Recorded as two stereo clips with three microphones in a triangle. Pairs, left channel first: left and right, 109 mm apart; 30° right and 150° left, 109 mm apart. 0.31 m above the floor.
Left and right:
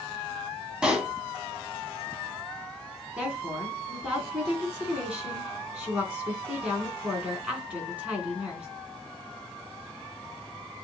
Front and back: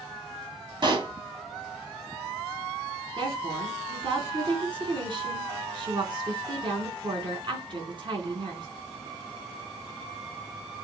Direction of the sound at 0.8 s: 170° right.